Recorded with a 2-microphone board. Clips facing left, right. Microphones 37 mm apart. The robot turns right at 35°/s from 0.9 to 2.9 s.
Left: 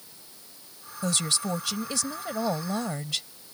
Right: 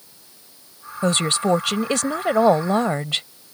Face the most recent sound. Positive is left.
turn(degrees=-55)